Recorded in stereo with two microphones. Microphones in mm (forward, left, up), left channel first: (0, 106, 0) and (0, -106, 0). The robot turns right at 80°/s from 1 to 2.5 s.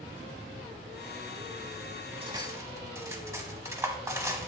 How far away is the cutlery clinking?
About 0.8 m.